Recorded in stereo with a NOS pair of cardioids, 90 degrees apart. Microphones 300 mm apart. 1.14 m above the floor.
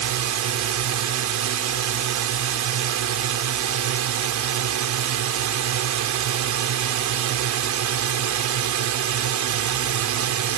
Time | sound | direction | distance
0.0 | a drone | 65° right | ?